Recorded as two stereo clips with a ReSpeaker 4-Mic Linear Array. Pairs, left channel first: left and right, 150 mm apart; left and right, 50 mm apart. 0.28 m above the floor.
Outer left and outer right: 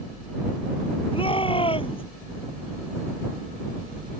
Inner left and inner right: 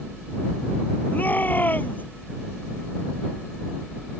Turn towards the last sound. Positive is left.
turn(degrees=35)  # may be behind; listen again after turning